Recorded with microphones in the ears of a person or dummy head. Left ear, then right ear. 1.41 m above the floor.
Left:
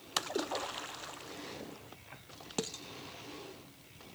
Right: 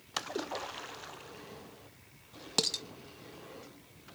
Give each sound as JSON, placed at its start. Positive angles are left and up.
{"t": 0.2, "sound": "a splash", "side_deg": 0, "distance_m": 0.7}
{"t": 2.6, "sound": "dishes clattering", "side_deg": -35, "distance_m": 0.9}